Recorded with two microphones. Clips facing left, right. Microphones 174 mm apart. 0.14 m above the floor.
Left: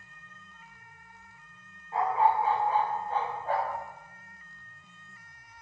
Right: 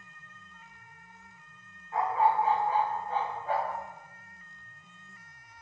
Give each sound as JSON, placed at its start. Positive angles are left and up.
{"t": 1.9, "sound": "a dog barking", "side_deg": 25, "distance_m": 5.0}